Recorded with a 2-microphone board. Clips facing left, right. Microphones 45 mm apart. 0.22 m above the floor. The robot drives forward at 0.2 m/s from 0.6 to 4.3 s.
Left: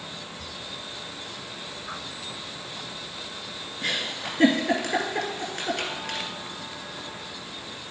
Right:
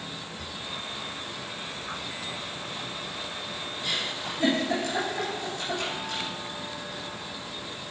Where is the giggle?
65° left (ahead or behind), 2 m.